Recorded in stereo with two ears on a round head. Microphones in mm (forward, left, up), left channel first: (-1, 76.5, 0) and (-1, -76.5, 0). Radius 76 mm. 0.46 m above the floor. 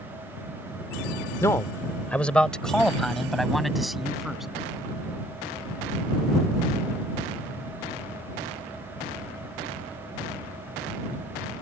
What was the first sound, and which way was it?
A man speaking, 15° left (ahead or behind).